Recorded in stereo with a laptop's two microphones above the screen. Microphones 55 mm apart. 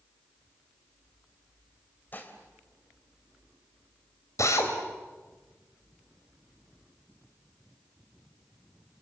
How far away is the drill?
About 4 m.